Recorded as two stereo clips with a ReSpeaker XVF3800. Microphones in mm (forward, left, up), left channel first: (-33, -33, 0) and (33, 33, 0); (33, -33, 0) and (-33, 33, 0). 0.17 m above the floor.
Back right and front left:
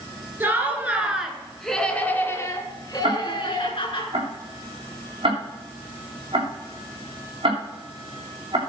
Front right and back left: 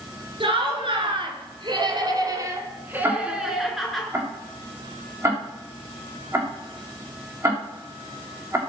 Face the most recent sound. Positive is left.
turn(degrees=75)